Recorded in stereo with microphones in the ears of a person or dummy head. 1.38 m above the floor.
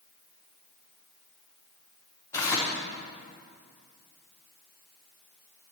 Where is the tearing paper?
15° left (ahead or behind), 1.0 m.